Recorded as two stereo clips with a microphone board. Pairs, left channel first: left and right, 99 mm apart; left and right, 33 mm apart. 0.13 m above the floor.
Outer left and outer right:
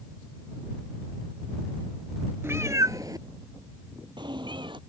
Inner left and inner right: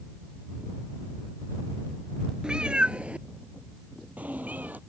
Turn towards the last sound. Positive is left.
turn(degrees=-55)  # may be behind; listen again after turning